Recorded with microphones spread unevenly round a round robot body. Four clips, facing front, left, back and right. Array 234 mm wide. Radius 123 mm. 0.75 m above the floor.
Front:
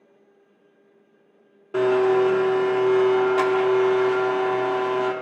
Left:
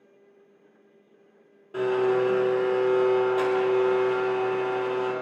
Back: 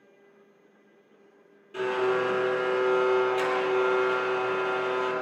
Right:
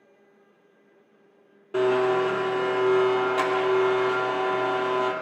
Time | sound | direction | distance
1.7 | a blender | 45° right | 2 m